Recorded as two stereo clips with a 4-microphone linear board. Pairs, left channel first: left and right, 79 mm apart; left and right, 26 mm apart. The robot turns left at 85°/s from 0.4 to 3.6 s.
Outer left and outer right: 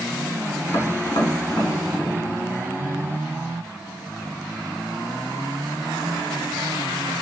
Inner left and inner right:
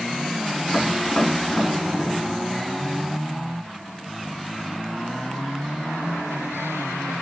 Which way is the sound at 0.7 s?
50° left (ahead or behind).